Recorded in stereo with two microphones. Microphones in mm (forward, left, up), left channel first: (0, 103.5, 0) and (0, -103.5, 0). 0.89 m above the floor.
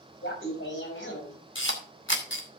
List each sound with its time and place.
0.2 s laughter: 85° left, 6 m
1.6 s a camera shutter: 80° left, 2.5 m